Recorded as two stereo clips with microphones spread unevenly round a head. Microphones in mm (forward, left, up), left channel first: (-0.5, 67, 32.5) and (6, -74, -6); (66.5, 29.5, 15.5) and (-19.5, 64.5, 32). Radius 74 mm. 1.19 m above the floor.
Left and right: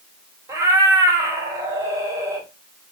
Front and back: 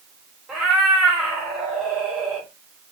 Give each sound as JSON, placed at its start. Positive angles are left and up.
{"t": 0.5, "sound": "a cat meowing", "azimuth_deg": -165, "distance_m": 0.5}